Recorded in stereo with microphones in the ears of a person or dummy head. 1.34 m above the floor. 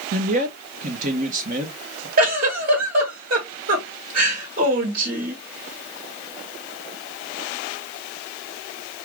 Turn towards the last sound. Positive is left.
turn(degrees=-55)  # may be behind; listen again after turning